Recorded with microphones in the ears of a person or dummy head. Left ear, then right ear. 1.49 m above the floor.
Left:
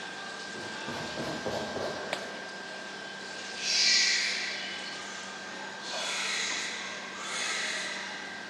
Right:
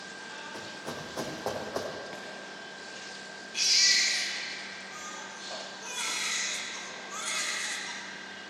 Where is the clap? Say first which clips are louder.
Left 7 dB; 20° left (ahead or behind), 0.5 m.